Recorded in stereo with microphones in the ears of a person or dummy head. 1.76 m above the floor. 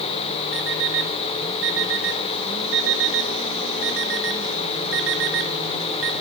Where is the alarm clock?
65° right (ahead or behind), 3 m.